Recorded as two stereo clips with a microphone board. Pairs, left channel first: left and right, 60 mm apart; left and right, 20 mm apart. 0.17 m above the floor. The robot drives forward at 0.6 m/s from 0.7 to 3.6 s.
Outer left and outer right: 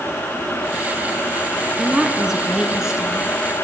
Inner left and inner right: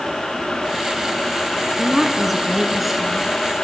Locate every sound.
1.8 s a woman speaking: 10° right (ahead or behind), 1.4 m